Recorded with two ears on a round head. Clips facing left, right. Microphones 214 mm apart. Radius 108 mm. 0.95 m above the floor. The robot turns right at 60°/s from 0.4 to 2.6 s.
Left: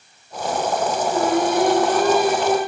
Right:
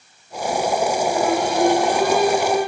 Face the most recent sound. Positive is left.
turn(degrees=110)